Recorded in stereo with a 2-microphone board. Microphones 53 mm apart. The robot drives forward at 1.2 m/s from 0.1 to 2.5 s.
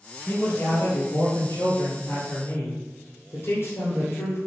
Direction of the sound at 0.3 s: 40° left (ahead or behind).